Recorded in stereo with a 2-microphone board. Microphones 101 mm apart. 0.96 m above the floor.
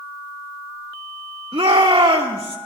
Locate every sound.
1.5 s a shout: 70° right (ahead or behind), 2 m